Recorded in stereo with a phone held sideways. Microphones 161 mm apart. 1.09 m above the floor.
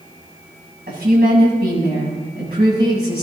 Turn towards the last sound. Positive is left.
turn(degrees=-80)